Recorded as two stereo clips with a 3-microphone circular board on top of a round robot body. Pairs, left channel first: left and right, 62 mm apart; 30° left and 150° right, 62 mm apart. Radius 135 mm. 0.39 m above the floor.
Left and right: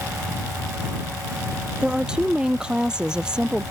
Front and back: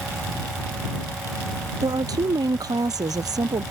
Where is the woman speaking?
170° right.